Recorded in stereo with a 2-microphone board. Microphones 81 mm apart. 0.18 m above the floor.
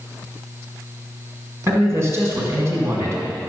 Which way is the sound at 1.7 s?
35° right (ahead or behind).